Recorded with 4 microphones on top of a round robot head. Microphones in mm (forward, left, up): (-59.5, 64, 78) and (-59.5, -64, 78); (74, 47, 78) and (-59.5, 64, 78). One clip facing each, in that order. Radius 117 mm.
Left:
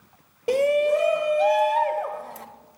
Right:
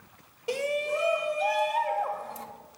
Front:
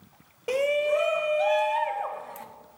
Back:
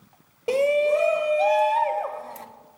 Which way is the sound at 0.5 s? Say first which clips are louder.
Left 9 dB, back 4 dB; 115° left.